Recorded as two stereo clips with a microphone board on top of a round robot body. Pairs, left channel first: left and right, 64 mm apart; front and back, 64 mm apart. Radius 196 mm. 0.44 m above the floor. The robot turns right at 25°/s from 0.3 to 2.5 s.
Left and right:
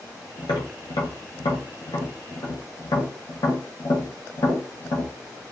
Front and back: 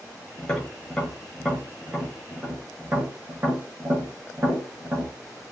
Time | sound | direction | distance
0.4 | tapping | 70° left | 0.7 m